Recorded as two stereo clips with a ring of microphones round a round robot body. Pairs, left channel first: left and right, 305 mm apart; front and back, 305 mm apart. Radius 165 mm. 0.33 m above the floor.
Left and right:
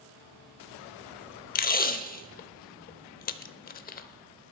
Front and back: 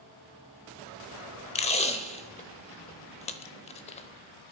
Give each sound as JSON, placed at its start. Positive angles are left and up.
{"t": 1.6, "sound": "tape being pulled", "azimuth_deg": 55, "distance_m": 0.7}